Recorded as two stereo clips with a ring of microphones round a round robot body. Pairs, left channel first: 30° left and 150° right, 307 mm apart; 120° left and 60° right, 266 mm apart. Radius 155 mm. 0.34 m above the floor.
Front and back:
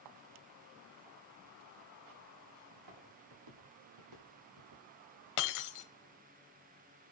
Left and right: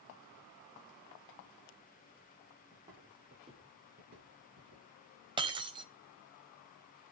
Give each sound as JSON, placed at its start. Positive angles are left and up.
{"t": 2.7, "sound": "footsteps", "azimuth_deg": -140, "distance_m": 4.5}
{"t": 5.4, "sound": "breaking glass", "azimuth_deg": 10, "distance_m": 1.1}